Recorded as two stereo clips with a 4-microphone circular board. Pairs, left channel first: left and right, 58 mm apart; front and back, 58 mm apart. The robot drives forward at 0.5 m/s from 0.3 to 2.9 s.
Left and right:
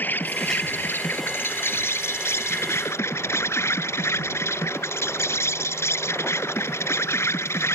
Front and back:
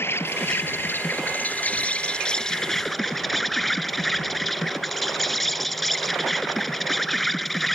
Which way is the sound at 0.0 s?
35° left.